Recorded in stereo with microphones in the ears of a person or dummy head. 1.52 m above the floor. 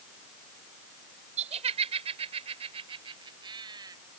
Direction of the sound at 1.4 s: 30° right (ahead or behind).